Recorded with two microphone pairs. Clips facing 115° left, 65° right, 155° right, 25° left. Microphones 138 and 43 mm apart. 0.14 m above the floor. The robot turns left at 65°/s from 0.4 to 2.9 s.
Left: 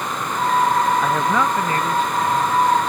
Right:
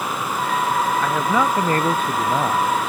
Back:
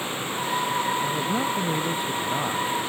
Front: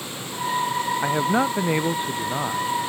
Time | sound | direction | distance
1.0 | a man speaking | 35° left | ?